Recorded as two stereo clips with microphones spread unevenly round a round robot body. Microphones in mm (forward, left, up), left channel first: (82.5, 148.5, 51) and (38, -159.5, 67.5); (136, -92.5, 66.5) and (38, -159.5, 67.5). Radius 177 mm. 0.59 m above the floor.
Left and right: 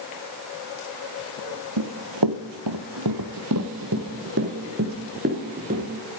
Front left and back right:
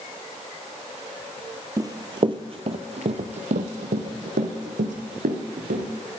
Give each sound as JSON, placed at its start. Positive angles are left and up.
{"t": 1.8, "sound": "running footsteps", "azimuth_deg": -85, "distance_m": 1.0}